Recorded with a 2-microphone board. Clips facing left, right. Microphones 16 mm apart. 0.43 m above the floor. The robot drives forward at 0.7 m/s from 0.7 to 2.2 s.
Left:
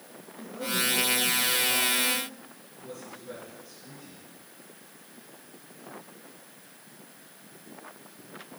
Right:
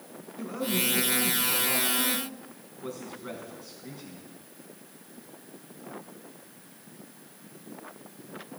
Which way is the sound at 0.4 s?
65° right (ahead or behind).